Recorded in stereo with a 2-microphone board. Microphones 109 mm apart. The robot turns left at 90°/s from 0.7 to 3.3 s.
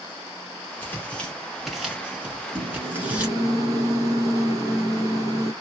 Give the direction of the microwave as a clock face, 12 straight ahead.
2 o'clock.